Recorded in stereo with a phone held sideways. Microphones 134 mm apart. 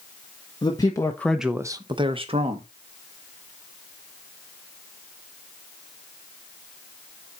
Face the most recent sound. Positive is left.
turn(degrees=-45)  # may be behind; listen again after turning